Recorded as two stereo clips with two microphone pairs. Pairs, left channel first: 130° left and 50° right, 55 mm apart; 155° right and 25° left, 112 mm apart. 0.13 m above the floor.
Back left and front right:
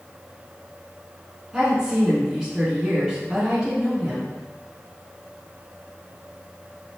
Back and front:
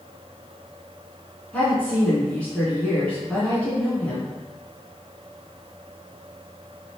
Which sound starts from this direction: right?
A woman speaking, at 1.5 s.